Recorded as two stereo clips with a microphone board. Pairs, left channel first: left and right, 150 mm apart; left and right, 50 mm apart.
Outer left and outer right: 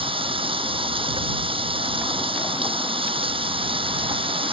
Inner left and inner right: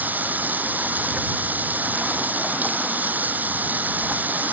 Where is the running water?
35° right (ahead or behind).